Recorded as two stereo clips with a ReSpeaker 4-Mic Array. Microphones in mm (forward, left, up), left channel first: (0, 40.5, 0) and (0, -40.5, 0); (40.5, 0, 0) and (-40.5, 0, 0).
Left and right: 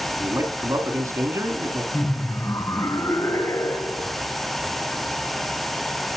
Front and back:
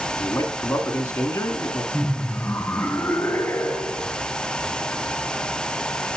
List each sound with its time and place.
0.2 s a man speaking: 50° right, 1.9 m
1.9 s laughter: 55° left, 1.4 m